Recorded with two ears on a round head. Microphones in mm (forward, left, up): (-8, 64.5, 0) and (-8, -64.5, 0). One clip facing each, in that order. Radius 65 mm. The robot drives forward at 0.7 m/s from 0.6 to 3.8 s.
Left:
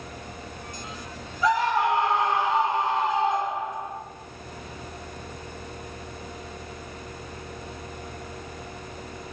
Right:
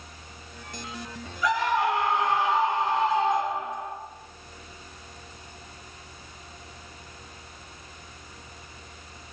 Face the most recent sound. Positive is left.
turn(degrees=20)  # may be behind; listen again after turning